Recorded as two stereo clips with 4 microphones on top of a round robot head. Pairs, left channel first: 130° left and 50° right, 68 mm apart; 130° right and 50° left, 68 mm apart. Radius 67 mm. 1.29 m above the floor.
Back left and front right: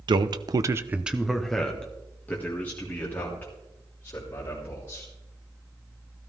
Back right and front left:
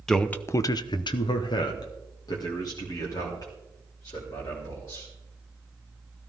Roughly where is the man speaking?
Ahead right.